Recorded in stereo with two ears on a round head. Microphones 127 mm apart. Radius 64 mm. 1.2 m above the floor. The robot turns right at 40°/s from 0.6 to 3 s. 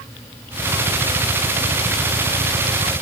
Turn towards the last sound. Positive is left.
No sound to turn to.